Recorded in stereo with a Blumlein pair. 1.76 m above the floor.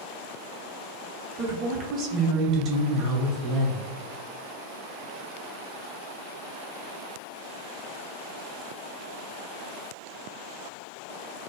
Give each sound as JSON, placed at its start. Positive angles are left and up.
{"t": 1.4, "sound": "a woman speaking", "azimuth_deg": -30, "distance_m": 1.0}